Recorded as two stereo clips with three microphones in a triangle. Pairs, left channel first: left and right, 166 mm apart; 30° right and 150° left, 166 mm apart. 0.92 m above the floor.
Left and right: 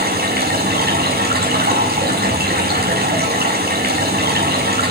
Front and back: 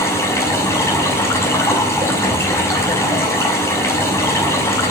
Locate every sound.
0.0 s running water: 105° right, 6.5 m